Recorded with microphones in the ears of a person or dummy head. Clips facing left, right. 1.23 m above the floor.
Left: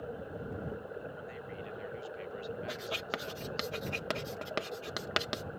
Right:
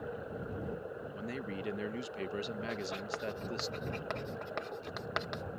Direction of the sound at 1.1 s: 70° right (ahead or behind).